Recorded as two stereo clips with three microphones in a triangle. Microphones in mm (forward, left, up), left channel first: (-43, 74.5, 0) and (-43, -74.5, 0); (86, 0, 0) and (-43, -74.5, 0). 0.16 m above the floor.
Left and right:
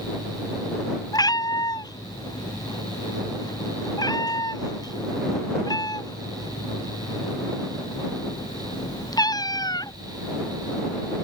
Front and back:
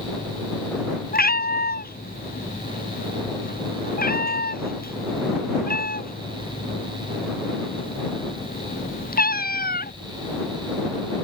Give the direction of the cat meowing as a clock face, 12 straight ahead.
11 o'clock.